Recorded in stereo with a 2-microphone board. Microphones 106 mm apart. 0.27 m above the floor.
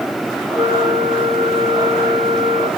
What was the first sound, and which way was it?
A flute, 50° right (ahead or behind).